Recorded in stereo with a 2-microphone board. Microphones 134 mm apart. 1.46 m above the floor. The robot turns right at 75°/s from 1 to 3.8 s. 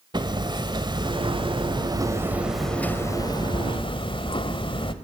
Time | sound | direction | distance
0.1 | hammering | 120° right | 1.5 m